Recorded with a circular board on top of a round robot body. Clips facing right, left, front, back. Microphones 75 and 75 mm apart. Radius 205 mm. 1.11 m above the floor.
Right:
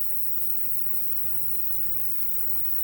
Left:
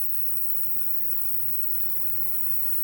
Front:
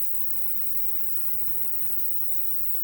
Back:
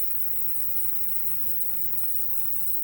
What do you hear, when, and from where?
0.0 s an insect: 160° right, 1.4 m